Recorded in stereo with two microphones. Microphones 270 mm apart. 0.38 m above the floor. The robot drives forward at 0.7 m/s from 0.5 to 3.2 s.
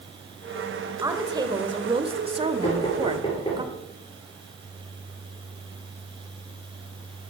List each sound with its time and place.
1.0 s a woman speaking: 15° right (ahead or behind), 1.3 m; by 3.6 s 20° right (ahead or behind), 1.0 m
2.6 s knocking: 25° left (ahead or behind), 5.5 m; by 3.6 s 20° left (ahead or behind), 6 m